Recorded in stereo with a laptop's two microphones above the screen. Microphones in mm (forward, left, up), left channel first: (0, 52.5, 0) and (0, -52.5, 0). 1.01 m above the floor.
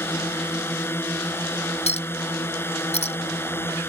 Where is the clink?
85° left.